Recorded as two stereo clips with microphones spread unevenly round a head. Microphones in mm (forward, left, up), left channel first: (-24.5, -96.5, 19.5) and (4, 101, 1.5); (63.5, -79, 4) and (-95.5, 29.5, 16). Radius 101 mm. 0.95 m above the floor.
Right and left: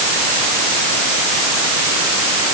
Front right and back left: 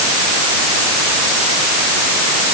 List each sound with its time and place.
Only background noise.